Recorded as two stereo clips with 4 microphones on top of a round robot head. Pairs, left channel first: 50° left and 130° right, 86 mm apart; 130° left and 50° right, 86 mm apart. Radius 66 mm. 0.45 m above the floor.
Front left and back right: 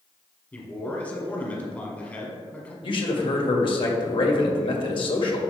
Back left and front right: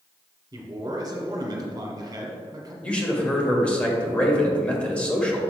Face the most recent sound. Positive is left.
turn(degrees=50)